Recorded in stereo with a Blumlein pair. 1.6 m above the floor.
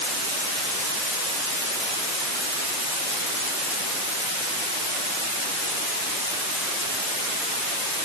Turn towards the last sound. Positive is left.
No sound to turn to.